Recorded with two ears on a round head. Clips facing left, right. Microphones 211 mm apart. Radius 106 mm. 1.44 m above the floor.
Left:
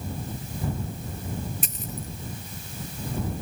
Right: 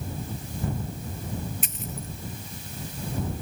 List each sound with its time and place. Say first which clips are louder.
1.6 s a dropped coin: left 1 dB; 35° left (ahead or behind)